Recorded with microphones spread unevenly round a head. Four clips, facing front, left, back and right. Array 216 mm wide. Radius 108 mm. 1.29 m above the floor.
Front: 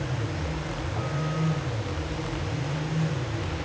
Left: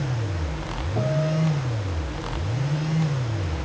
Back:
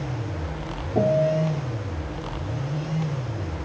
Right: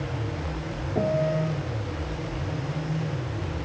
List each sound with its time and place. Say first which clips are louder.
0.9 s a piano: right 1 dB, back 13 dB; 165° right